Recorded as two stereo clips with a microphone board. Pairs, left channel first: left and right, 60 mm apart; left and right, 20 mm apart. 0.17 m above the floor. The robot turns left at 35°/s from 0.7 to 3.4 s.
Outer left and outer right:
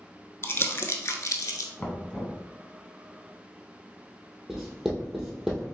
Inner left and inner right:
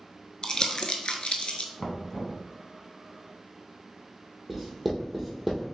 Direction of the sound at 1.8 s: 20° left (ahead or behind).